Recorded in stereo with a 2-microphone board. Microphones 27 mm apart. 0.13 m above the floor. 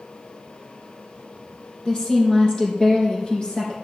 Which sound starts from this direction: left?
A woman speaking, at 1.9 s.